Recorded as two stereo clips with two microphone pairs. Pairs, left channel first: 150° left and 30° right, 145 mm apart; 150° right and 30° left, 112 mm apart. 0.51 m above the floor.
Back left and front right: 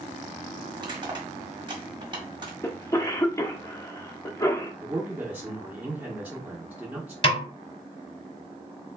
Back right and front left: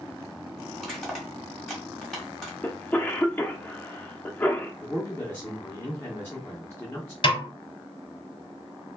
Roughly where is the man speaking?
Right.